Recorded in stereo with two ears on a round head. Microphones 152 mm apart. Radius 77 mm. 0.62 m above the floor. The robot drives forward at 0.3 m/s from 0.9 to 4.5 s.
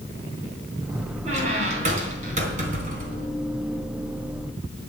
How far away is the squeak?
About 3.5 m.